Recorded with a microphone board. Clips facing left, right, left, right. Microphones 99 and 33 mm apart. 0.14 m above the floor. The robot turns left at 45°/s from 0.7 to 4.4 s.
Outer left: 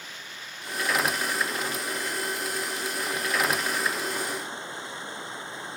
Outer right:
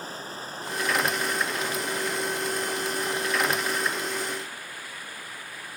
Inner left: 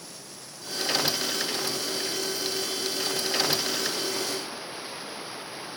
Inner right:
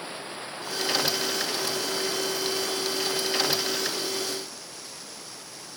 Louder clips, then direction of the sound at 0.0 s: Outer right 7 dB, inner right 8 dB; 40° right.